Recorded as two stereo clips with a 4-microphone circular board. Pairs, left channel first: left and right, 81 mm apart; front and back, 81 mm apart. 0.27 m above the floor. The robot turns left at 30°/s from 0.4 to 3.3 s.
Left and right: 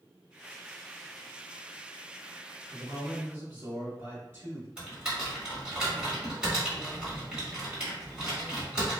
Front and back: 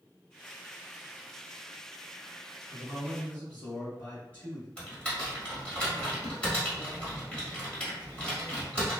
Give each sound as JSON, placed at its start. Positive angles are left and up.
{"t": 2.7, "sound": "a man speaking", "azimuth_deg": -40, "distance_m": 1.1}
{"t": 4.8, "sound": "typing on a keyboard", "azimuth_deg": -40, "distance_m": 1.5}